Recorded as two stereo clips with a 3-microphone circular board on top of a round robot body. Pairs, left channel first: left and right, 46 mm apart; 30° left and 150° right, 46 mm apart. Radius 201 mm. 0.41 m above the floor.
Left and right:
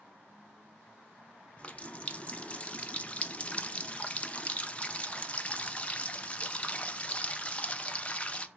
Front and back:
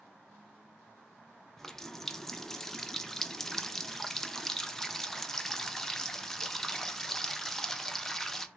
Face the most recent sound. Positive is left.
turn(degrees=100)